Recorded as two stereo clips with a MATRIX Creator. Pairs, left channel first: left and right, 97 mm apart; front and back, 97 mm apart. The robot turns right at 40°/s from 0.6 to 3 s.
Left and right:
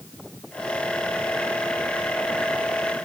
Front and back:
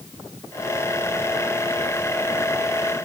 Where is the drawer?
I don't hear a drawer.